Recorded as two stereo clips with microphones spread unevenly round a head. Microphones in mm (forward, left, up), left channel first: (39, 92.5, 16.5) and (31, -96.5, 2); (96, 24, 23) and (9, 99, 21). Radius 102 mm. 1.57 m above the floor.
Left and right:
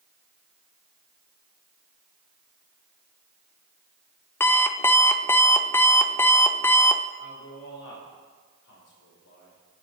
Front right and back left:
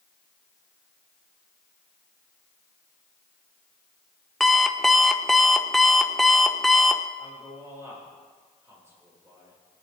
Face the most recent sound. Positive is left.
turn(degrees=75)